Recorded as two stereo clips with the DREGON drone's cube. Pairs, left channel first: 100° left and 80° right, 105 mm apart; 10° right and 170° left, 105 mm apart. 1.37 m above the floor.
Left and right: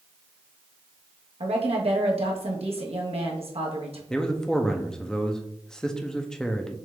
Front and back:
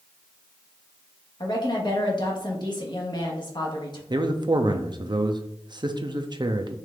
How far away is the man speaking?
About 0.6 m.